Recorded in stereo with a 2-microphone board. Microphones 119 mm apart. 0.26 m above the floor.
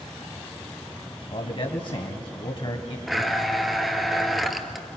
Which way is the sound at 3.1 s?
Centre (ahead or behind).